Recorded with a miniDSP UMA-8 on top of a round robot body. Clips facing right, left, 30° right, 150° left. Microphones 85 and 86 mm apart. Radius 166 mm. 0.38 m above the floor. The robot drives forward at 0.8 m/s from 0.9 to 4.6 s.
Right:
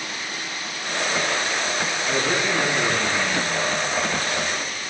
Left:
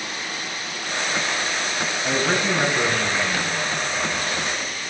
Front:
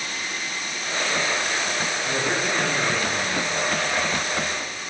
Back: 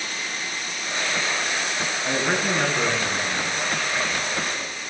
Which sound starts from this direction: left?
A man speaking, at 2.0 s.